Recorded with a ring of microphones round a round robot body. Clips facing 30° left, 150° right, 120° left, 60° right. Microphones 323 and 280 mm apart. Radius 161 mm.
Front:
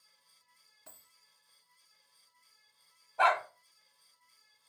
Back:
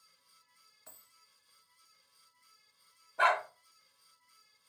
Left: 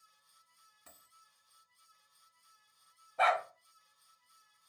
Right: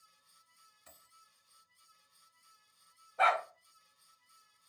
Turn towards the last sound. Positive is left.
turn(degrees=140)